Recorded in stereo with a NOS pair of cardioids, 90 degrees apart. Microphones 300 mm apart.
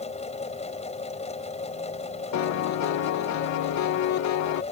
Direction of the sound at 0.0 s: 20° left.